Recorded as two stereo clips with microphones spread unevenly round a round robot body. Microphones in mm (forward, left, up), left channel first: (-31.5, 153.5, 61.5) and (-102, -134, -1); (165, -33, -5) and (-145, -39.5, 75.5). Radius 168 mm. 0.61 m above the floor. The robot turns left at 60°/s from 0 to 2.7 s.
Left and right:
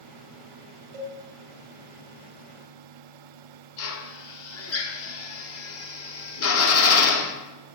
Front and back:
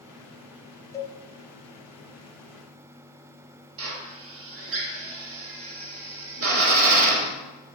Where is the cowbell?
85° right, 0.9 m; by 1.2 s 95° right, 0.9 m.